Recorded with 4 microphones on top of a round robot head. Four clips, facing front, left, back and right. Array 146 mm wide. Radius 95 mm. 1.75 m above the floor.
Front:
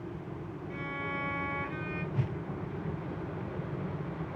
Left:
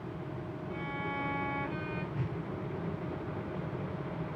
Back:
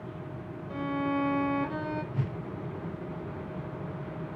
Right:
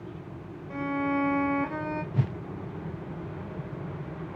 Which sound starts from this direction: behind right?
A violin, at 0.7 s.